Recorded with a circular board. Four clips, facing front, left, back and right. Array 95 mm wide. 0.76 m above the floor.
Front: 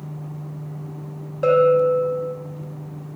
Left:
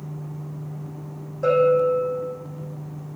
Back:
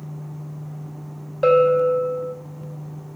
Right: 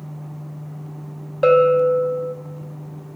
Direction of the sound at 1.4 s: 105° right.